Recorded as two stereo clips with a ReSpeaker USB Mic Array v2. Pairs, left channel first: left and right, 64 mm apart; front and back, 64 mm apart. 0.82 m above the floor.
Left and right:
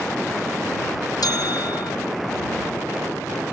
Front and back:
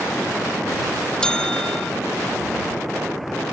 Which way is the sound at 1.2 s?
80° left.